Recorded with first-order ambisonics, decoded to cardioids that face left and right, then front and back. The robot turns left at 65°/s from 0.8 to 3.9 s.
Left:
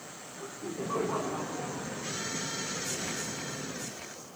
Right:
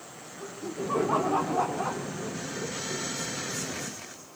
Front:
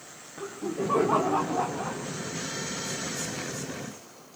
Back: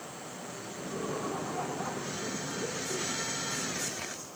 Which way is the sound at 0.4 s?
10° right.